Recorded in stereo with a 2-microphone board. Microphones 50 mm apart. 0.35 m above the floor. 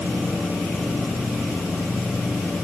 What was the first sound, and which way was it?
Only background noise.